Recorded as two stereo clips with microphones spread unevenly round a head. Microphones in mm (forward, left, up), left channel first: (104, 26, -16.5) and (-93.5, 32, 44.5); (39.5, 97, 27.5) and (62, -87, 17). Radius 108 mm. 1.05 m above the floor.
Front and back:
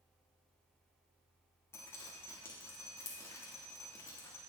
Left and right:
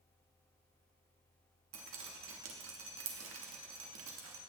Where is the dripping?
80° right, 1.3 m.